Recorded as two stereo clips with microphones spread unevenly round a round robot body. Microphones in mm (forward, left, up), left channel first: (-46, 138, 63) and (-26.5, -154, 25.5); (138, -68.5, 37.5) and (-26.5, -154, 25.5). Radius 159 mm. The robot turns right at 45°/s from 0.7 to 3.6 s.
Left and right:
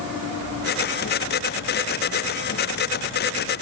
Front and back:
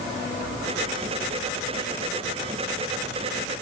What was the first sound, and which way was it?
Only background noise.